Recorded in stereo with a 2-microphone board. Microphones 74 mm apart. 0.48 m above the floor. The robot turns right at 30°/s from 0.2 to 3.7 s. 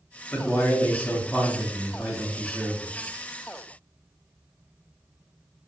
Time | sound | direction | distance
0.3 | a man speaking | 25° left (ahead or behind) | 0.7 m